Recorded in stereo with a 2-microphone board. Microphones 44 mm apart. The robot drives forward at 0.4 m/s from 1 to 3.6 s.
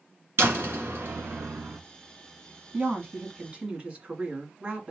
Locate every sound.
0.4 s a door slam: 65° right (ahead or behind), 2 m
2.7 s a woman speaking: 30° right (ahead or behind), 1.7 m; by 4.9 s 25° right (ahead or behind), 1.9 m